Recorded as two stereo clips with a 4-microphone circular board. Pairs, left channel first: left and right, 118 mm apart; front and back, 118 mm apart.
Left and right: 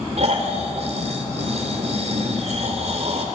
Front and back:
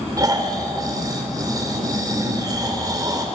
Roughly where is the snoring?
Behind right.